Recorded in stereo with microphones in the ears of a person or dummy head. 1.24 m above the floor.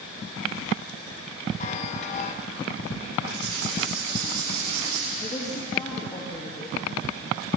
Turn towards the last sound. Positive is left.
turn(degrees=25)  # may be behind; listen again after turning